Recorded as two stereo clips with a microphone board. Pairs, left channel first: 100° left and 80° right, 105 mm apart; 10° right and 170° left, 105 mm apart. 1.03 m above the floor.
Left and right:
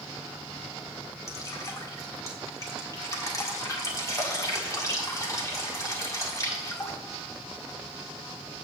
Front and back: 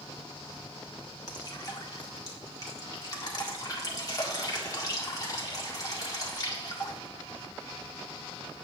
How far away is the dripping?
About 1.6 m.